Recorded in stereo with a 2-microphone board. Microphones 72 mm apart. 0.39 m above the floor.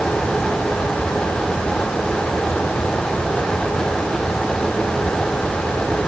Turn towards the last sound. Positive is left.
No sound to turn to.